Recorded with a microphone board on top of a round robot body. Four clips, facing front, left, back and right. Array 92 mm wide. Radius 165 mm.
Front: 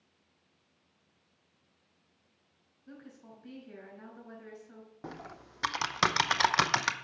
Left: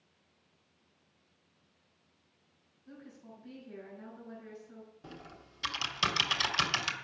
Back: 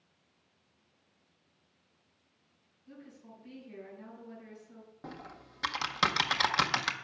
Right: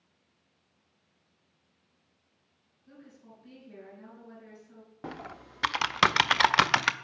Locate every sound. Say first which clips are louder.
2.9 s a woman speaking: left 1 dB, front 1 dB; 5° left, 5 m
5.0 s typing on a keyboard: right 13 dB, front 2 dB; 75° right, 0.6 m